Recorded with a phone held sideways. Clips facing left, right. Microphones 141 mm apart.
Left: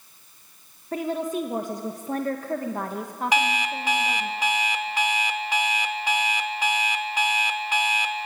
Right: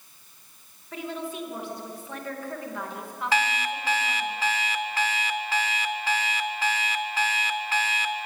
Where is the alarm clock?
15° left (ahead or behind), 1.0 m.